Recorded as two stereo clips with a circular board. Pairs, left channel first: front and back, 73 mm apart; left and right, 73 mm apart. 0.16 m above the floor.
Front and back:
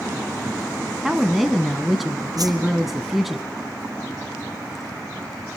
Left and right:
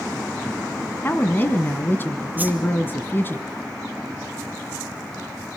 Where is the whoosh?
155° right, 2.5 m.